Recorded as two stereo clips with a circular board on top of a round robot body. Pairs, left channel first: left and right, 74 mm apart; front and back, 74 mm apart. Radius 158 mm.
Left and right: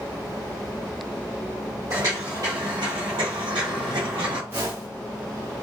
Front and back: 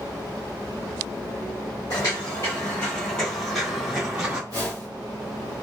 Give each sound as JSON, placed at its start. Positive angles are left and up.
{"t": 1.9, "sound": "footsteps", "azimuth_deg": -40, "distance_m": 1.4}
{"t": 4.5, "sound": "a whoosh", "azimuth_deg": -30, "distance_m": 0.7}